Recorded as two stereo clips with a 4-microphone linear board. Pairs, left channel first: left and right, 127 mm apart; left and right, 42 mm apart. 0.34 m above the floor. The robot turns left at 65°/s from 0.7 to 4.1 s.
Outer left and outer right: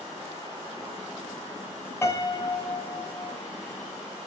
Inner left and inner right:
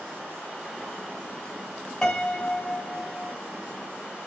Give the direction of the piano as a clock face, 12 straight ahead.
7 o'clock.